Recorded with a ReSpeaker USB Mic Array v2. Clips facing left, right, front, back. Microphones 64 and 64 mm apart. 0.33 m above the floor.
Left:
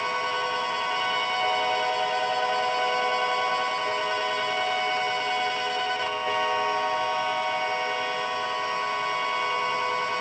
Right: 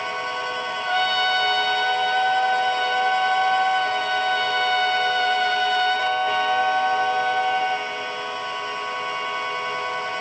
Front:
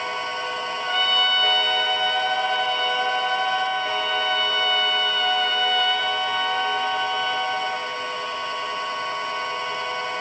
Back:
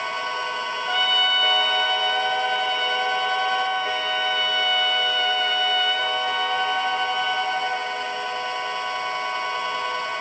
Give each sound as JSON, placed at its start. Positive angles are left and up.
{"t": 0.9, "sound": "a trumpet", "azimuth_deg": -95}